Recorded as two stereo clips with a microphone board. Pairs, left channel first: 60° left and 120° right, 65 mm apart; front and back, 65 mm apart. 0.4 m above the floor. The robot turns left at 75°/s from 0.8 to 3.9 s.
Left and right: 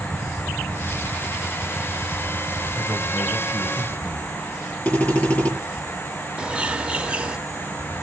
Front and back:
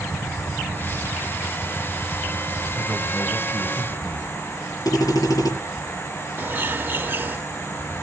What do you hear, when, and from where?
2.8 s a man speaking: 100° left, 1.8 m; by 4.3 s 10° left, 1.8 m
4.8 s a drill: 5° right, 8 m
6.4 s a bird: 175° right, 0.7 m